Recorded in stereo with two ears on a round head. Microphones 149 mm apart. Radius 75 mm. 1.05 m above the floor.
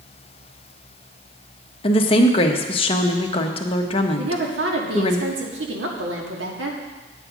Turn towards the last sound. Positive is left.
turn(degrees=-80)